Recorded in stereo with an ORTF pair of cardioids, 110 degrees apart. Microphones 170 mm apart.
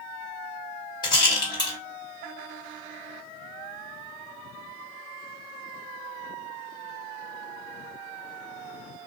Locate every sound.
1.0 s a rattle: 25° left, 1.6 m